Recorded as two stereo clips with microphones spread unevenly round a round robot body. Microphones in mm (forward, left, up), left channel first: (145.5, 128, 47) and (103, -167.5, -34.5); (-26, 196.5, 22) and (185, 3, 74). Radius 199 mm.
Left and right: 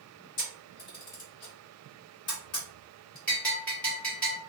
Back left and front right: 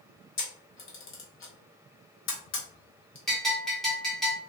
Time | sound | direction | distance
0.4 | a camera shutter | 130° left | 1.2 m
3.3 | a bell | 160° right | 1.2 m